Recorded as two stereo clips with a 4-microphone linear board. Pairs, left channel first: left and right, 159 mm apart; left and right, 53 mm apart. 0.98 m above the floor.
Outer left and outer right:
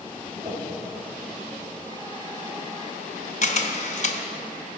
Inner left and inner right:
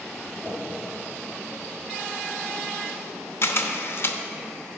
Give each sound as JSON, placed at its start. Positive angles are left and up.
{"t": 0.4, "sound": "a whoosh", "side_deg": -55, "distance_m": 2.5}
{"t": 3.4, "sound": "a camera shutter", "side_deg": 50, "distance_m": 0.7}